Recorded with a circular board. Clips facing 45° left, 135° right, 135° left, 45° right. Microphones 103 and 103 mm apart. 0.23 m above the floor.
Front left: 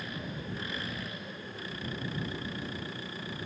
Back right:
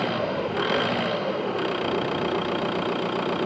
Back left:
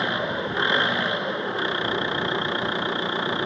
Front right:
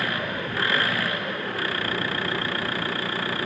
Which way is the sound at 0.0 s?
155° right.